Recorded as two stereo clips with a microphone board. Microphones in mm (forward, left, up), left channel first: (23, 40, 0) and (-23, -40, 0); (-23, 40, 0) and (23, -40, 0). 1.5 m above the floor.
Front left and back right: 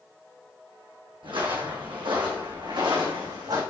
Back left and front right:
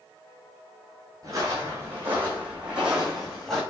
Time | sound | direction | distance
1.2 | footsteps | 110° right | 3.5 m